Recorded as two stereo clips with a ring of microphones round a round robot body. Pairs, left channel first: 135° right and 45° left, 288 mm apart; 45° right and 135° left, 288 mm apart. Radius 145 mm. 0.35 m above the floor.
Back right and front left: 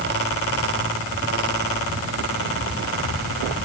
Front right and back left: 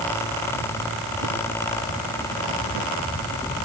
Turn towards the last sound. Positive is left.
No sound to turn to.